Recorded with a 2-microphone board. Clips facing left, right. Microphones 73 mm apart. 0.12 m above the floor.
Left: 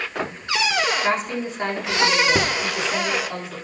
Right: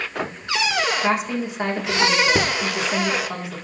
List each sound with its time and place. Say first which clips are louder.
1.0 s a woman speaking: right 1 dB; 15° right (ahead or behind), 6 m